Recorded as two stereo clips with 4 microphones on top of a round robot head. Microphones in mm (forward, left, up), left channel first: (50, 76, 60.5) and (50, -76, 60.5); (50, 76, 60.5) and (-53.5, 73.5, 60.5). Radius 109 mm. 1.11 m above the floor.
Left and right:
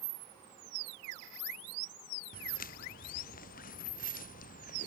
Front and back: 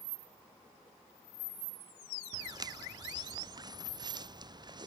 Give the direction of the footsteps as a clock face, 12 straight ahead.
8 o'clock.